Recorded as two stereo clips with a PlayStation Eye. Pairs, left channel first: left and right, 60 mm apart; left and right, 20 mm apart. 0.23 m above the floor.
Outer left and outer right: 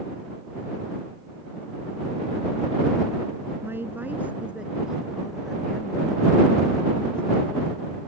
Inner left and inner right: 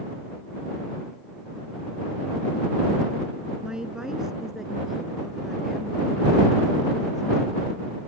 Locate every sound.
3.6 s a woman speaking: 45° right (ahead or behind); by 7.9 s 20° left (ahead or behind)